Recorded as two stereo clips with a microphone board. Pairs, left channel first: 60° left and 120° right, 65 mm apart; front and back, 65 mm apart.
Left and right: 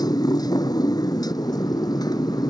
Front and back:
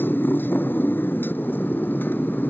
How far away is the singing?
No singing in this recording.